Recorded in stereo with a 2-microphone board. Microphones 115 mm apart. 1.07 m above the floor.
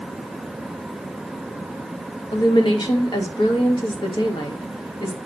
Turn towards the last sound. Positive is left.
turn(degrees=40)  # may be behind; listen again after turning